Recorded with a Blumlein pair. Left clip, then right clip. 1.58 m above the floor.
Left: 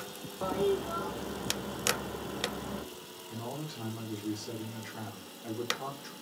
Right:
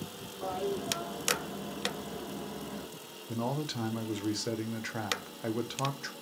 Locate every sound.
0.4 s a toilet flushing: 60° left, 0.6 m
3.3 s a man speaking: 40° right, 0.5 m